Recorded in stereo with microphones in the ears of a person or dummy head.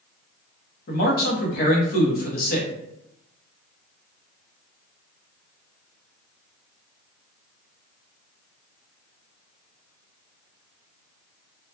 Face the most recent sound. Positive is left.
turn(degrees=50)  # may be behind; listen again after turning